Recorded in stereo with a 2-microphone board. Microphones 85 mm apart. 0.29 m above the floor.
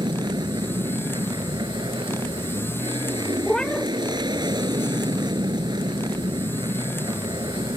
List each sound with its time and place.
0.0 s an aircraft: 50° right (ahead or behind)
3.5 s a cat meowing: 10° left (ahead or behind)